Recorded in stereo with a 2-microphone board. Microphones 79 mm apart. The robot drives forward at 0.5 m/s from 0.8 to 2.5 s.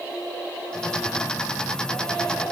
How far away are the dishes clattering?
No dishes clattering in this recording.